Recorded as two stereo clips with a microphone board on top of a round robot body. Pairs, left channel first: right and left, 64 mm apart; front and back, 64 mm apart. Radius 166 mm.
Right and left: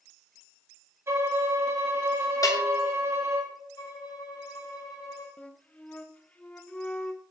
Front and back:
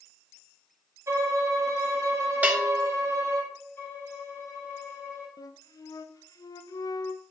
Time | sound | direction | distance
1.1 | a violin | 135° left | 1.5 m
2.4 | a bell | 115° right | 1.4 m
3.8 | a violin | 60° right | 1.4 m
5.4 | a flute | 20° right | 0.5 m